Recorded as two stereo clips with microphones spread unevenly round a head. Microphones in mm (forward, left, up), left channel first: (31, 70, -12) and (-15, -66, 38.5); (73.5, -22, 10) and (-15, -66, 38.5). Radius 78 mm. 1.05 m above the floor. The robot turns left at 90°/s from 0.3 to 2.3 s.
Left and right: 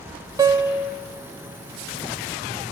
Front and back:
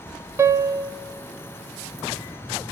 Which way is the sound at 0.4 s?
130° right.